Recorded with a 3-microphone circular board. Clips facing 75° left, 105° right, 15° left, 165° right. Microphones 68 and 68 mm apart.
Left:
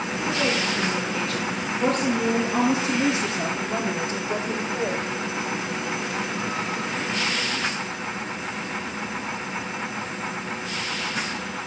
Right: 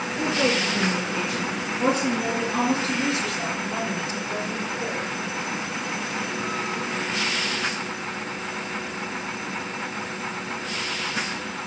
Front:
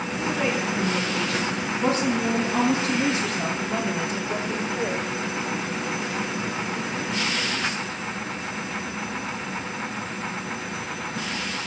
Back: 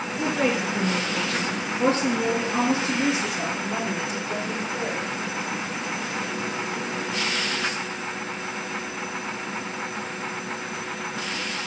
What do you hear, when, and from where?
0.2 s a woman speaking: 135° right, 2.5 m; by 5.1 s 95° left, 3 m